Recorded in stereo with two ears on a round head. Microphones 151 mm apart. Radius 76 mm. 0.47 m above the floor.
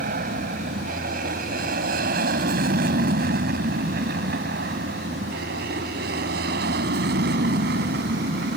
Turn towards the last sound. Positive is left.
turn(degrees=-65)  # may be behind; listen again after turning